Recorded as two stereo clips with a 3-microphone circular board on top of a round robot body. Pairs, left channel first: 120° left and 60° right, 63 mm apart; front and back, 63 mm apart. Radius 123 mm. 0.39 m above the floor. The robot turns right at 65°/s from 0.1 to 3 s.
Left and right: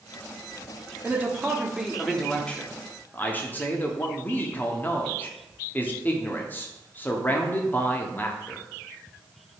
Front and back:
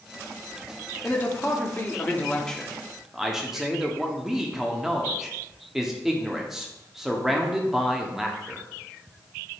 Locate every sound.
1.0 s a man speaking: 30° right, 1.1 m; by 8.7 s 100° left, 1.1 m